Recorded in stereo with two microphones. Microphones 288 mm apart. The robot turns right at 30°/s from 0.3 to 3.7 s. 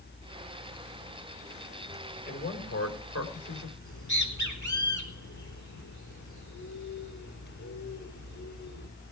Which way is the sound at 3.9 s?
80° left.